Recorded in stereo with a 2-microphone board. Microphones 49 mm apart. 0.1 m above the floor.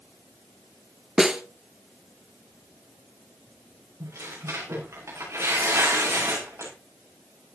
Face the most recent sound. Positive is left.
turn(degrees=-70)  # may be behind; listen again after turning